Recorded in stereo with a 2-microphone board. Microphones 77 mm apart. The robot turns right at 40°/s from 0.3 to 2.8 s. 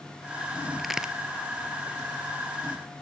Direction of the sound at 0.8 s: 5° left (ahead or behind).